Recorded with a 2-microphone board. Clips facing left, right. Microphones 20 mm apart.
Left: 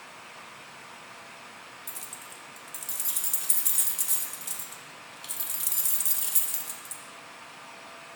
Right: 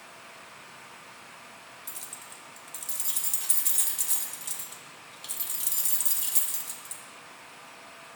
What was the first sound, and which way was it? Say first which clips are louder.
Keys jangling: even; 5° right (ahead or behind).